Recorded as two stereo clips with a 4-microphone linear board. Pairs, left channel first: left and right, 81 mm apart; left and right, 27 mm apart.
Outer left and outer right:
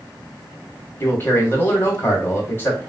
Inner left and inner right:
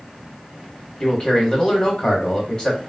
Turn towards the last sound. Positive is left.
turn(degrees=30)  # may be behind; listen again after turning